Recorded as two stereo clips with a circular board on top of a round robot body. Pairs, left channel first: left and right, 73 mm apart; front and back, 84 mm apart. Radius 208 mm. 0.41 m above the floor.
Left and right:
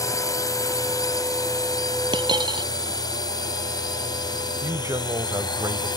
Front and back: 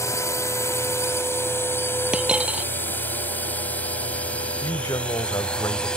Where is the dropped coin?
105° right.